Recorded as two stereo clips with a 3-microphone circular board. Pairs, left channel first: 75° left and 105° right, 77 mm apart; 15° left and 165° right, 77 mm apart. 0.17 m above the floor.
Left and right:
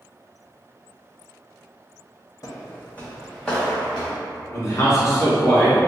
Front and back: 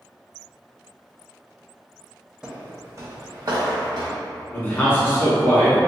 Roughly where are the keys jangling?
I don't hear keys jangling.